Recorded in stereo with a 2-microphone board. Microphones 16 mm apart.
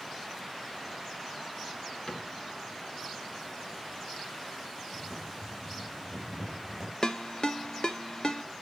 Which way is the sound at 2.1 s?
45° left (ahead or behind).